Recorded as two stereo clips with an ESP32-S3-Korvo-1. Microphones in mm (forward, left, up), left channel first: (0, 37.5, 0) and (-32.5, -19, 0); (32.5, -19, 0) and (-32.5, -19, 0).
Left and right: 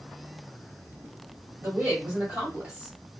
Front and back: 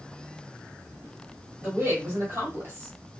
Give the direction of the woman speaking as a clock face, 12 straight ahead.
4 o'clock.